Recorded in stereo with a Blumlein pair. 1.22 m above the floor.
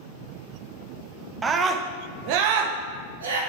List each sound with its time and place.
1.4 s a scream: 15° right, 0.9 m; by 3.4 s 70° right, 1.3 m